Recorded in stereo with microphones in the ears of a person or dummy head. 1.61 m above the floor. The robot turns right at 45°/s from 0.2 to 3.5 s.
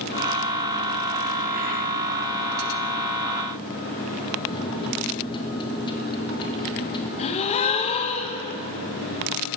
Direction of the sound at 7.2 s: 40° left (ahead or behind).